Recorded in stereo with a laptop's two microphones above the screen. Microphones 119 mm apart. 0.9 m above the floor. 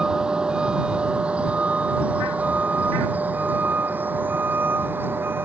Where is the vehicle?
5° right (ahead or behind); by 5.5 s 20° right (ahead or behind).